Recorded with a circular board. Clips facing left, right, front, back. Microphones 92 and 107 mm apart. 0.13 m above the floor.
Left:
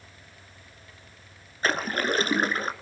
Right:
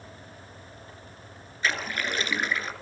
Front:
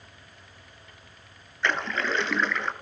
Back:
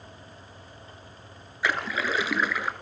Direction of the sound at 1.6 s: 100° left.